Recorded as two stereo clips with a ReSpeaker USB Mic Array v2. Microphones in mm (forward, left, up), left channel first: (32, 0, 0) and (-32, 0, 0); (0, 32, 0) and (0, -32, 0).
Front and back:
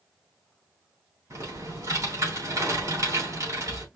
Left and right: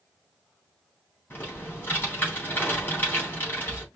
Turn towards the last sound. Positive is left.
turn(degrees=150)